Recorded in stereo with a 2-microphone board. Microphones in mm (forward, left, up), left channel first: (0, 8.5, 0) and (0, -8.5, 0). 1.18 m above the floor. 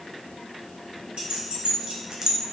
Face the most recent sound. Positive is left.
turn(degrees=-25)  # may be behind; listen again after turning